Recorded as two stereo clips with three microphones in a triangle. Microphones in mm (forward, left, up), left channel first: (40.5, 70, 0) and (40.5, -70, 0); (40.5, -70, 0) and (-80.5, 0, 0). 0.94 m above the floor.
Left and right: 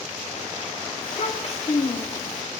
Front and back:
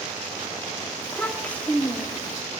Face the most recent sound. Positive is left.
turn(degrees=50)